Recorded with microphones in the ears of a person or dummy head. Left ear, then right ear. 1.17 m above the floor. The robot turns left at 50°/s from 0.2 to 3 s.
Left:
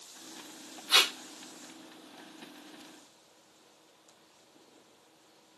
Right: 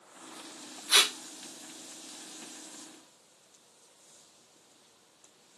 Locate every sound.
0.9 s tape being pulled: centre (ahead or behind), 1.1 m; by 1.1 s 10° right (ahead or behind), 1.1 m